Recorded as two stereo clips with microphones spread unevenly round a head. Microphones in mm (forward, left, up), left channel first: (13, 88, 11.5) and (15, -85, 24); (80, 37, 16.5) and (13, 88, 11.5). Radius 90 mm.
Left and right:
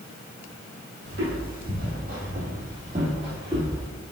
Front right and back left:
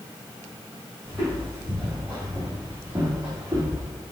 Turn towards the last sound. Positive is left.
turn(degrees=-155)